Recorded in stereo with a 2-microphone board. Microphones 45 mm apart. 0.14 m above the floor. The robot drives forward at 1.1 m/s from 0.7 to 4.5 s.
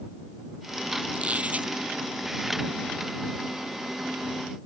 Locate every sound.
1.1 s a squeak: 25° right (ahead or behind); by 1.7 s 35° right (ahead or behind)